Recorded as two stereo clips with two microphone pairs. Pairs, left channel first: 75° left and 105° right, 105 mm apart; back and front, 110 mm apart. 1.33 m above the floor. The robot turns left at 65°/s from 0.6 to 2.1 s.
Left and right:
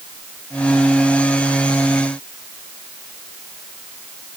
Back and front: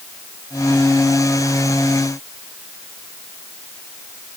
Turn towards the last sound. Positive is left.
No sound to turn to.